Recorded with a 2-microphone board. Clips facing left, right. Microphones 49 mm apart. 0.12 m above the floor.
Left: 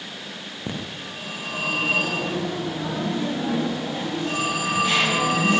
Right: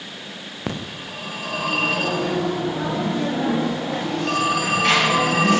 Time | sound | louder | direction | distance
0.7 | a phone ringing | right 3 dB | 70° right (ahead or behind) | 7.5 m